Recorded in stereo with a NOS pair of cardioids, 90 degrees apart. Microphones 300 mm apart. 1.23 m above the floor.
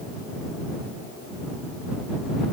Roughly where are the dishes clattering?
I don't hear dishes clattering.